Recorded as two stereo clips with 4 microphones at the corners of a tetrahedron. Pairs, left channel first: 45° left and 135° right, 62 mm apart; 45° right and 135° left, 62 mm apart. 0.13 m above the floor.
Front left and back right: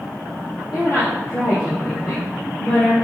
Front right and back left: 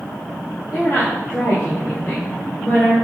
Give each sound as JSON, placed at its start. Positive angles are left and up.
{"t": 0.7, "sound": "a woman speaking", "azimuth_deg": -10, "distance_m": 3.5}